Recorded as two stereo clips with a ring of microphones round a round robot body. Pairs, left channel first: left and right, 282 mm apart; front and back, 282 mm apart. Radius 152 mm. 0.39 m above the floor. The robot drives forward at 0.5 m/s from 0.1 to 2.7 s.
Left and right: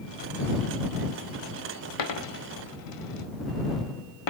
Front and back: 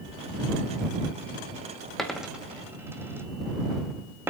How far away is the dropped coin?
About 2.5 m.